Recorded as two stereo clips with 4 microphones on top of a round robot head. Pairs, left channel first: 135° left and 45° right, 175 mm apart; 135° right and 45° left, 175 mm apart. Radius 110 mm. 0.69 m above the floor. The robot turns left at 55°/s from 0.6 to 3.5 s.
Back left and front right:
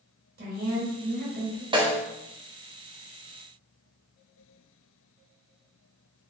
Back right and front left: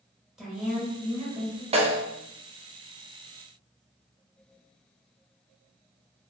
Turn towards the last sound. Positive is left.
turn(degrees=-90)